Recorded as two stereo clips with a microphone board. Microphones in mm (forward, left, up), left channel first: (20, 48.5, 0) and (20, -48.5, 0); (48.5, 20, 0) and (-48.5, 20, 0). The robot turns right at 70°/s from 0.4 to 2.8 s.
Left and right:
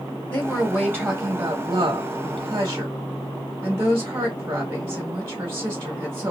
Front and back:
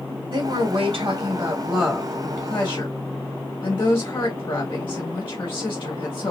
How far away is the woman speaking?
About 2.5 m.